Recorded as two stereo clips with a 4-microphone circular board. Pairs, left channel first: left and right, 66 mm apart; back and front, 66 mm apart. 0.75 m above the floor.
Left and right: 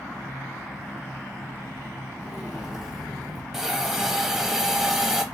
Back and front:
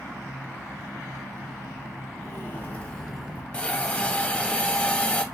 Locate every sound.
2.2 s footsteps: 170° right, 1.1 m; by 3.4 s 5° right, 0.7 m
3.5 s a hiss: 165° right, 0.6 m